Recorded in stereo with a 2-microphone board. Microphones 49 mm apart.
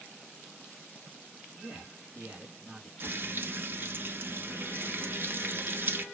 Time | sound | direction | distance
1.6 | a man speaking | 15° right (ahead or behind) | 3.5 m
3.0 | frying | 40° right (ahead or behind) | 1.1 m